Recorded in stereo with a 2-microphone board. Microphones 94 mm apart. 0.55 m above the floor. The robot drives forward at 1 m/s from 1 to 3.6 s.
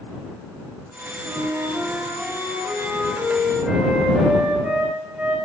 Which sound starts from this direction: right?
A flute, at 1.2 s.